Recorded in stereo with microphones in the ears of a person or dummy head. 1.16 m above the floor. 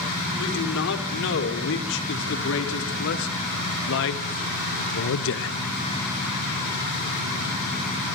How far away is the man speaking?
About 4 m.